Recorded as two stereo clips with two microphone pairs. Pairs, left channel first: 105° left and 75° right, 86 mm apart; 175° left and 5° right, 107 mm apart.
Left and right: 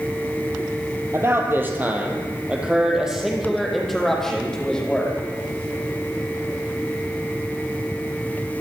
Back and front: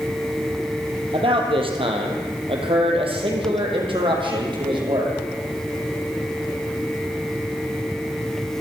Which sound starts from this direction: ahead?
A man speaking, at 1.1 s.